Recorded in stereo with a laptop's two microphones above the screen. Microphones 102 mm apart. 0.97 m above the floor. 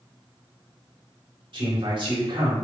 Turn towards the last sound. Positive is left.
turn(degrees=-55)  # may be behind; listen again after turning